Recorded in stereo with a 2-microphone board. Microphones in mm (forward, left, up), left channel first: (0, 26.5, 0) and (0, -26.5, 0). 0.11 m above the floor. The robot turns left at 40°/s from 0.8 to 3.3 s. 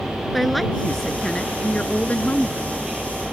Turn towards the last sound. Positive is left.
turn(degrees=80)